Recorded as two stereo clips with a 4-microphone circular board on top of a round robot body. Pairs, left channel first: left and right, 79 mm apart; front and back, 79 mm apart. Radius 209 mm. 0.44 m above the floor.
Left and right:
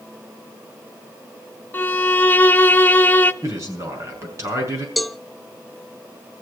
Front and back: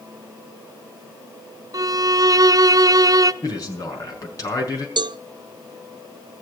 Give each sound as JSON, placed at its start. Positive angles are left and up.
{"t": 1.7, "sound": "a violin", "azimuth_deg": 155, "distance_m": 1.0}
{"t": 3.4, "sound": "a man speaking", "azimuth_deg": -40, "distance_m": 6.0}
{"t": 5.0, "sound": "a cowbell", "azimuth_deg": 180, "distance_m": 0.5}